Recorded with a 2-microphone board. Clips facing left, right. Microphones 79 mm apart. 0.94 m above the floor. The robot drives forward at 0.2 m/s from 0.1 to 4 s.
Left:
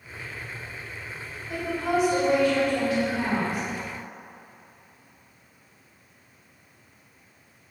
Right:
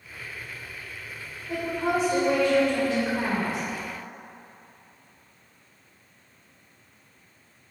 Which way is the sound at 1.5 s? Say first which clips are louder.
Even; 35° right (ahead or behind).